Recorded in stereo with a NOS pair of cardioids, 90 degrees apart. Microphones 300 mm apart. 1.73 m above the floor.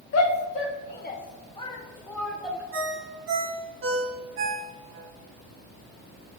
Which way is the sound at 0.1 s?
55° left.